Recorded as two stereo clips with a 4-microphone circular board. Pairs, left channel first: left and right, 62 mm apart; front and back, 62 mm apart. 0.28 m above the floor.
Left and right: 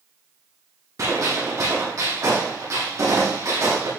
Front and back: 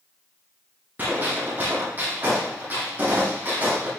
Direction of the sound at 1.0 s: 120° right.